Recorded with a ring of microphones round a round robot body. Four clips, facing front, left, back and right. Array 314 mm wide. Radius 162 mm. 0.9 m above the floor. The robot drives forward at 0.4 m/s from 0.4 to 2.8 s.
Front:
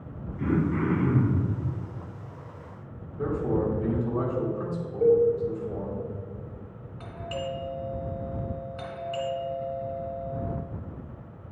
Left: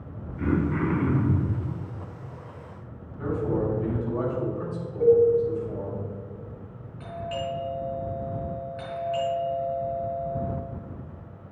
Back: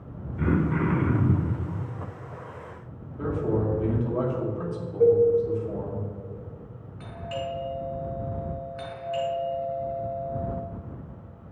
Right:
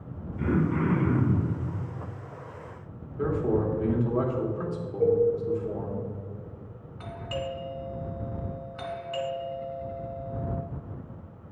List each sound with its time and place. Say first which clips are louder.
0.4 s throat clearing: left 1 dB, back 1 dB; 170° right, 2 m; by 1.6 s 175° right, 2.5 m
3.2 s a man speaking: right 1 dB, even; 125° right, 2.5 m
5.0 s a cowbell: left 5 dB, back 2 dB; 170° right, 2.5 m
7.0 s a doorbell: left 3 dB, back 1 dB; 95° right, 3 m